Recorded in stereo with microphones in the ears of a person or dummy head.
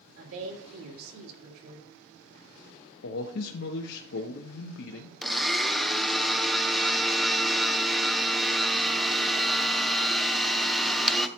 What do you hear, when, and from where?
0.2 s a woman speaking: 75° right (ahead or behind), 3 m
3.0 s a man speaking: 65° left (ahead or behind), 0.6 m
5.2 s a blender: 5° left (ahead or behind), 0.7 m